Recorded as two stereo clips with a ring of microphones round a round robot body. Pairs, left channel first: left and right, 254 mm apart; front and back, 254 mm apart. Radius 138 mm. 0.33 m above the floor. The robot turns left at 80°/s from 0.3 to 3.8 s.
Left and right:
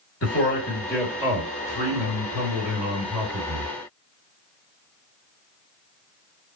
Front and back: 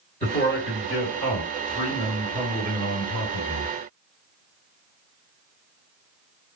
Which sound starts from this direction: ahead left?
A man speaking, at 0.2 s.